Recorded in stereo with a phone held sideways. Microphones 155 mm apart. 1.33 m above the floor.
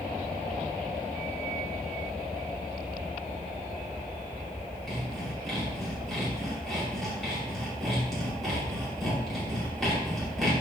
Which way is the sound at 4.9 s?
Centre (ahead or behind).